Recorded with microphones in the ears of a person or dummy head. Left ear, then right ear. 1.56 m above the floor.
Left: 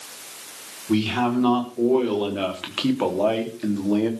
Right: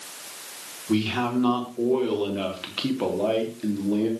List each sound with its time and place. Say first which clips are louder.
0.9 s a man speaking: left 3 dB; 10° left (ahead or behind), 4 m; by 4.1 s 40° left (ahead or behind), 3 m